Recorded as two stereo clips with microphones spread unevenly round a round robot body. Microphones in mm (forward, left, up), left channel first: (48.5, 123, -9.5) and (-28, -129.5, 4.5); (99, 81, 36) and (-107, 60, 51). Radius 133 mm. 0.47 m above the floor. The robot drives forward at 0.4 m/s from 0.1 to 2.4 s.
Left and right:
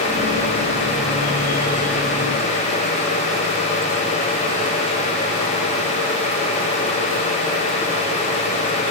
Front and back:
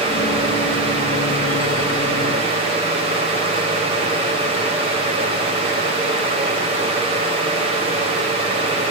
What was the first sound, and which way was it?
Only background noise.